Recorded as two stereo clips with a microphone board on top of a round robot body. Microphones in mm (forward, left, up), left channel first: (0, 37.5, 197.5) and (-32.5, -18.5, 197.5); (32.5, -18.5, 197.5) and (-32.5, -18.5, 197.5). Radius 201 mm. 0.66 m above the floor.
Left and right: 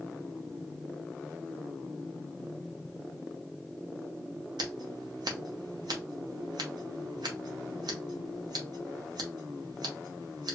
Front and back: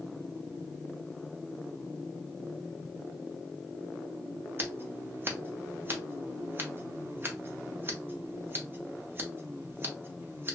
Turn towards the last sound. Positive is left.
turn(degrees=-120)